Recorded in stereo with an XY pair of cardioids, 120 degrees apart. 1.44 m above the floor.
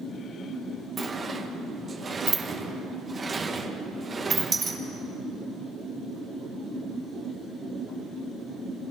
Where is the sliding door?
30° right, 1.9 m.